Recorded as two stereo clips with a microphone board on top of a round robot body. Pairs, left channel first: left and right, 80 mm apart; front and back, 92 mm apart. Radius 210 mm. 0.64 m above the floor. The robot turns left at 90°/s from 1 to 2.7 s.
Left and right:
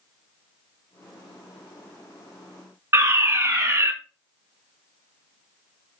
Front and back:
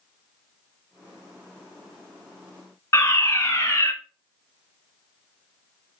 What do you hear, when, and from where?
2.9 s a fire alarm: 40° right, 2.5 m